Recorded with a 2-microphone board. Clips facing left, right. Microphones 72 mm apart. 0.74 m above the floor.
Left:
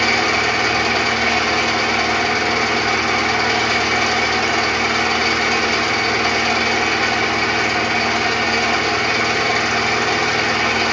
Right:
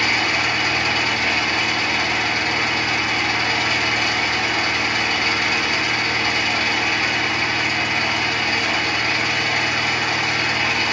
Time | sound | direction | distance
0.0 | an engine running | 75° left (ahead or behind) | 0.8 m